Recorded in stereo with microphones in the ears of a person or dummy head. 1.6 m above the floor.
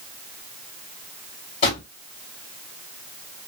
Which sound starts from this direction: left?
A drawer, at 1.6 s.